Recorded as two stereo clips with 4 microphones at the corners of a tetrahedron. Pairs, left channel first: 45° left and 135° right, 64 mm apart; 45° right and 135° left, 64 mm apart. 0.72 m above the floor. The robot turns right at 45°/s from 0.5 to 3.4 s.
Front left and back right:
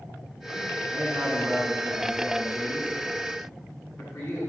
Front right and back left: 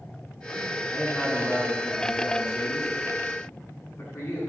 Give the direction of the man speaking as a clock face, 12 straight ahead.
3 o'clock.